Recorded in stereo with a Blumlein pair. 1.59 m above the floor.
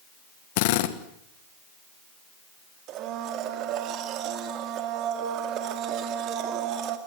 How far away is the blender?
About 2.5 m.